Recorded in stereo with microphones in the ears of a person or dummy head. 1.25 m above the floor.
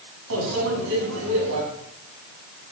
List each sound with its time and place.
0.3 s a microwave: 75° right (ahead or behind), 7.5 m